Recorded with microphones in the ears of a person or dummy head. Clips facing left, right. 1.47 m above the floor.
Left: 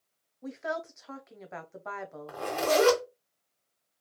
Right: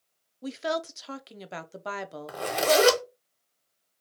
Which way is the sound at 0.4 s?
40° right (ahead or behind).